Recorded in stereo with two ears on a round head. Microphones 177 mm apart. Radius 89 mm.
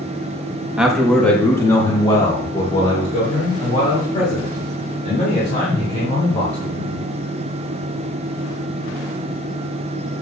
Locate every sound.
0.8 s a man speaking: 5° right (ahead or behind), 1.2 m; by 7.0 s 45° left (ahead or behind), 5.5 m